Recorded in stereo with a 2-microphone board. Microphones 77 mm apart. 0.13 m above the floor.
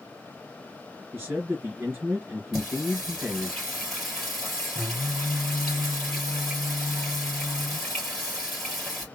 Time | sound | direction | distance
1.1 | a man speaking | 25° right (ahead or behind) | 2 m
2.5 | singing | centre (ahead or behind) | 3 m